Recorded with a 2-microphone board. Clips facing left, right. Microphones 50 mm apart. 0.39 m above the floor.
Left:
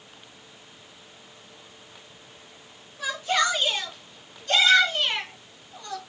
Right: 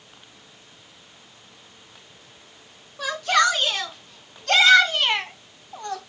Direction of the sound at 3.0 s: 70° right (ahead or behind).